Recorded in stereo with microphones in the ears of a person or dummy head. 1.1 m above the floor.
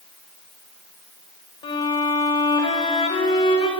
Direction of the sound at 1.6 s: 25° left (ahead or behind).